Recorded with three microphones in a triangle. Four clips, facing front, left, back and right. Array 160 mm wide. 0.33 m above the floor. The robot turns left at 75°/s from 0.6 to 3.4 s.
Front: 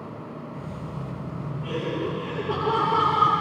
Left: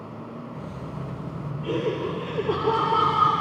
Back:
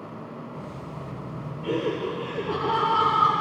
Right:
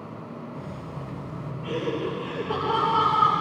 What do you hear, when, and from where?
1.6 s laughter: 175° left, 9 m; by 3.3 s 50° left, 9 m